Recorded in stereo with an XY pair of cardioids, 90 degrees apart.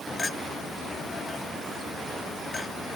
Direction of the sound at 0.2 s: 35° left.